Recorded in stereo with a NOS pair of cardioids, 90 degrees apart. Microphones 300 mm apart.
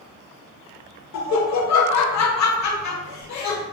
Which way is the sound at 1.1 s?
60° left.